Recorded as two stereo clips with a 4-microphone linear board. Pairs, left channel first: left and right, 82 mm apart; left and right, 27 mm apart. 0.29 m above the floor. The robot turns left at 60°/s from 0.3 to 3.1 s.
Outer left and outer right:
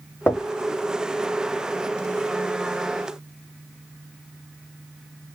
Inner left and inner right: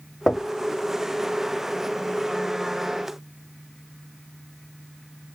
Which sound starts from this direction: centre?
Knocking, at 0.3 s.